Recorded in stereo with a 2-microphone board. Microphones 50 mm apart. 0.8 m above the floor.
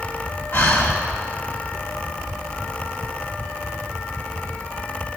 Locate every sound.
0.5 s breathing: 50° left (ahead or behind), 1.3 m